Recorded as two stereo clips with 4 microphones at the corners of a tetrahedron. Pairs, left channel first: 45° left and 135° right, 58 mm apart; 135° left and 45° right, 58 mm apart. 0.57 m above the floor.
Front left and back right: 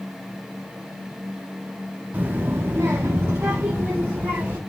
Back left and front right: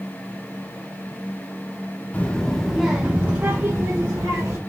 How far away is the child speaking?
About 0.6 m.